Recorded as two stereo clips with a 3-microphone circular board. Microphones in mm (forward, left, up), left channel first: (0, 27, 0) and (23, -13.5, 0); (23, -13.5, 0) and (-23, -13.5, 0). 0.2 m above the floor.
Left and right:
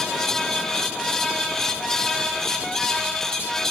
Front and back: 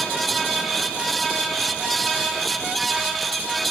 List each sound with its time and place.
Only background noise.